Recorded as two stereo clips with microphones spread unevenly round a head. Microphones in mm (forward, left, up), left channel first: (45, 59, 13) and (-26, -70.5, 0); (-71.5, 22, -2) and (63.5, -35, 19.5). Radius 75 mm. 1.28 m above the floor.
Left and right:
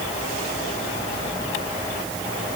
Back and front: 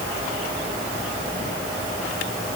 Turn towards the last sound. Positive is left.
No sound to turn to.